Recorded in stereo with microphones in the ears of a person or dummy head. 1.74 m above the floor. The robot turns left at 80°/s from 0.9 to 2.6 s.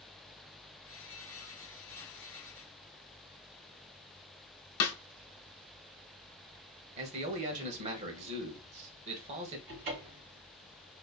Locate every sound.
4.8 s a snare drum: 75° left (ahead or behind), 0.6 m
7.0 s a man speaking: 40° right (ahead or behind), 1.1 m
9.7 s a cupboard door: 50° right (ahead or behind), 1.5 m